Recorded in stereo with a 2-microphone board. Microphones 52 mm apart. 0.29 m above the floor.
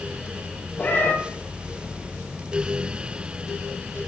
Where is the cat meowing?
40° left (ahead or behind), 5.5 m.